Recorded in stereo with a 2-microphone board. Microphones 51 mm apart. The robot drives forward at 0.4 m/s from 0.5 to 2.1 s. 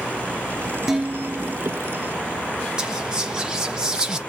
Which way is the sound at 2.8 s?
15° right (ahead or behind).